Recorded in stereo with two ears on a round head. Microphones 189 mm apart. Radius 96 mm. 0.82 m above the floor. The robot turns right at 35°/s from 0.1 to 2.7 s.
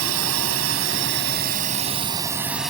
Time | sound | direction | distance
0.0 | a drone | 90° right | ?